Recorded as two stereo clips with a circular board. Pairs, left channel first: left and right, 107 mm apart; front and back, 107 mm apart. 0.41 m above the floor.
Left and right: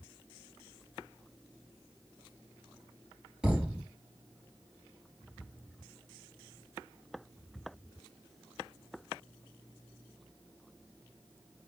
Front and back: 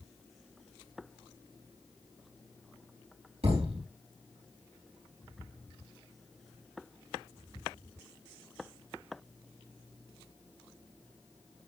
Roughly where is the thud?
Behind.